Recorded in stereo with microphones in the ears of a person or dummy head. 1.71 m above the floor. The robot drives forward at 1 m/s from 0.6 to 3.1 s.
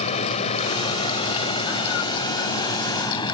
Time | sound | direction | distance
0.0 | running water | 35° left (ahead or behind) | ?